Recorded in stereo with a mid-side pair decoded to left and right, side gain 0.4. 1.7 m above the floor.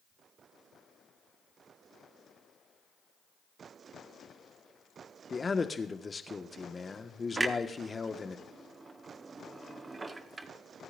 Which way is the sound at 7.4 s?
35° right.